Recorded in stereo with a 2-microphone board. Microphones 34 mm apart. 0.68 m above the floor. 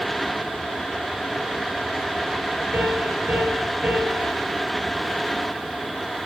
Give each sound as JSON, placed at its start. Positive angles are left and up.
{"t": 2.7, "sound": "a piano", "side_deg": -80, "distance_m": 7.0}